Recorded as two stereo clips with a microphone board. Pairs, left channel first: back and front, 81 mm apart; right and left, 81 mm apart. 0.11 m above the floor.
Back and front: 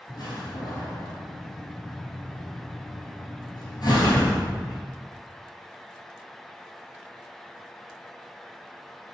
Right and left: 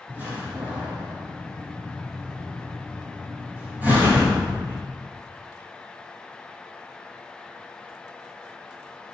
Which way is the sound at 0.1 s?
155° left.